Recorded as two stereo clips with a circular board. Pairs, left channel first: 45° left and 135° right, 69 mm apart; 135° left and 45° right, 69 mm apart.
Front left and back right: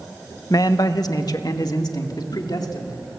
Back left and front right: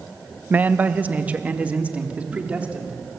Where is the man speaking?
20° left, 0.9 m; by 3.0 s 25° left, 3.5 m.